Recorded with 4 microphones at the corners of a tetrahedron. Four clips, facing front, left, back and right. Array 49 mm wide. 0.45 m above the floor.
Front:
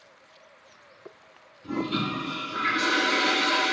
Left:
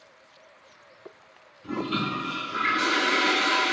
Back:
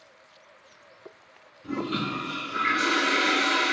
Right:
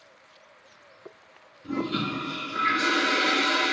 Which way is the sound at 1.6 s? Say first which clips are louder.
Even, front 1 dB; 100° left.